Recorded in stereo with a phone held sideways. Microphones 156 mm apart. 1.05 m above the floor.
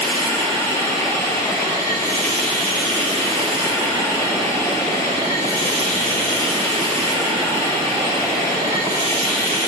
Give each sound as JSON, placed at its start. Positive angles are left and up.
{"t": 0.0, "sound": "running water", "side_deg": -35, "distance_m": 3.0}